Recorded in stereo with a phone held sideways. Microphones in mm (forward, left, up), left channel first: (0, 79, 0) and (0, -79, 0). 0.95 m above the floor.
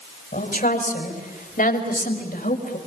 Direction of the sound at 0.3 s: 60° left (ahead or behind).